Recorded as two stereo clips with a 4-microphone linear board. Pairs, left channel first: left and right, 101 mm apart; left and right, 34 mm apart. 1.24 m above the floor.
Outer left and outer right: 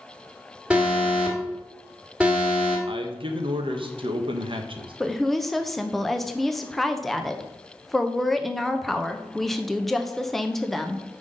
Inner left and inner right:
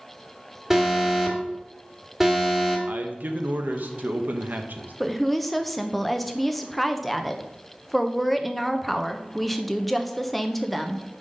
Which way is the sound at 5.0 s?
Centre (ahead or behind).